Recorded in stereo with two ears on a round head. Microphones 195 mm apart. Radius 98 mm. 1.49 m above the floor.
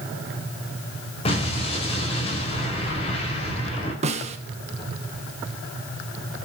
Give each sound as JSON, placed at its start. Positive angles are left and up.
{"t": 1.2, "sound": "an explosion", "side_deg": 25, "distance_m": 4.5}
{"t": 4.0, "sound": "a snare drum", "side_deg": -30, "distance_m": 1.3}